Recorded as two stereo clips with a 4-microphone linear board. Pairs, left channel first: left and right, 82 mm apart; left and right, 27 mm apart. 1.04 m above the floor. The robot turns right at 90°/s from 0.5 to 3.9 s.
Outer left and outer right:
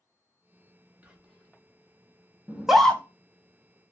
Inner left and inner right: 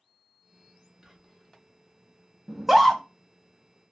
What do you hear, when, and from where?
1.0 s whispering: 25° right, 0.7 m; by 1.6 s 25° left, 0.7 m
2.5 s a scream: 20° right (ahead or behind), 0.5 m; by 3.0 s 20° left (ahead or behind), 0.5 m